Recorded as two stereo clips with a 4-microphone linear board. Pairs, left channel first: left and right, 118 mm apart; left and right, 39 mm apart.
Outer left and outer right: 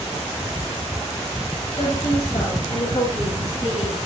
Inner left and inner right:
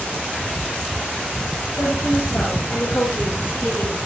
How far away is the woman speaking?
About 10 m.